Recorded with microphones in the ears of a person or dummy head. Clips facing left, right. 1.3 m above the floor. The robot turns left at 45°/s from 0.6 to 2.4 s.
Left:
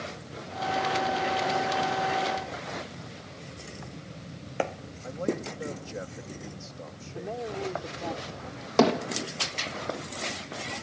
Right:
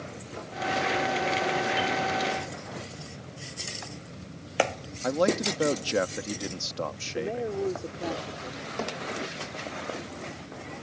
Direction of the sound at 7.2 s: 25° right (ahead or behind).